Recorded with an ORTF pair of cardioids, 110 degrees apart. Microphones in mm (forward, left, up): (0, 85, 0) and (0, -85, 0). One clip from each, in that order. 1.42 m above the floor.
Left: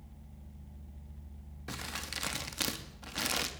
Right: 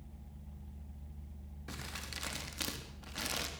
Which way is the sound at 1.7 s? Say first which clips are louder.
Left 5 dB; 30° left.